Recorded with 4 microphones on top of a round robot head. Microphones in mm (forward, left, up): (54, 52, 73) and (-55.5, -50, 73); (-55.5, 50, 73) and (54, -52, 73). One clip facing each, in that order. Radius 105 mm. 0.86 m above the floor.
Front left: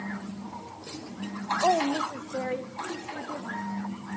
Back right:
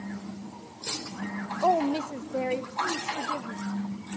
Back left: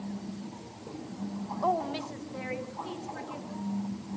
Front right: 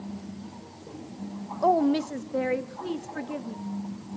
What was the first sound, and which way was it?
A woman speaking, 50° right.